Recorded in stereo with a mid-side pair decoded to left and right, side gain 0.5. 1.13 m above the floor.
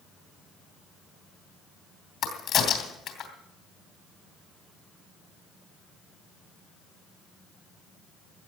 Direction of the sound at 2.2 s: 65° left.